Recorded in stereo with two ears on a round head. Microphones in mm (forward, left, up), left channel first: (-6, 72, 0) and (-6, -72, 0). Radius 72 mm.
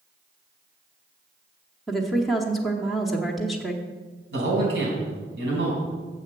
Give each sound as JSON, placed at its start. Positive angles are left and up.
{"t": 1.9, "sound": "a woman speaking", "side_deg": 0, "distance_m": 1.0}
{"t": 4.3, "sound": "a man speaking", "side_deg": -75, "distance_m": 4.0}